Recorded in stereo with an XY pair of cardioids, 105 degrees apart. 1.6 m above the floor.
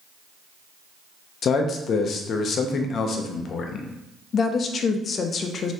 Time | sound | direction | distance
1.4 | a man speaking | 55° left | 0.6 m
4.3 | a woman speaking | 50° left | 0.5 m